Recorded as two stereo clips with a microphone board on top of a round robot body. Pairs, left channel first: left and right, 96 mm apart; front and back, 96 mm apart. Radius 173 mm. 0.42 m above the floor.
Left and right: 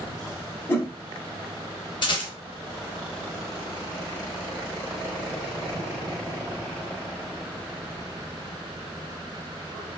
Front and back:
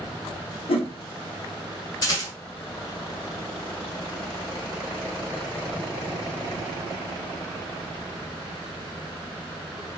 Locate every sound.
0.7 s a whoosh: 20° left, 0.8 m
2.0 s a rattle: 50° left, 0.9 m